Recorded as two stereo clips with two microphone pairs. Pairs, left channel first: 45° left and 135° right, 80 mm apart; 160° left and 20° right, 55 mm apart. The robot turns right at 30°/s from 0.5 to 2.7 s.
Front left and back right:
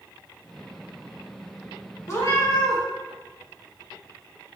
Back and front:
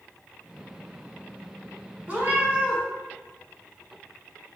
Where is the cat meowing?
25° left, 1.3 m; by 2.8 s 45° left, 1.3 m.